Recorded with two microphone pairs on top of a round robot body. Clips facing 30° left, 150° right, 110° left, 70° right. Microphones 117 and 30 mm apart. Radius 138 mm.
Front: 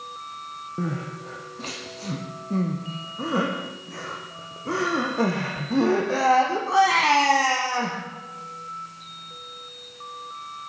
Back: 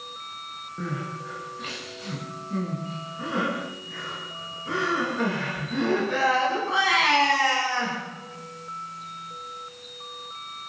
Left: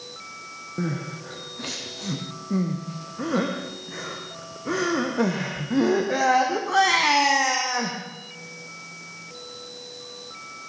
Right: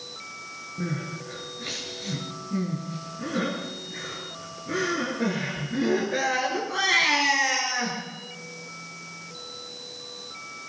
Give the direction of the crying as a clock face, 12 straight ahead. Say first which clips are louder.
Front 2 dB, left 3 dB; 9 o'clock.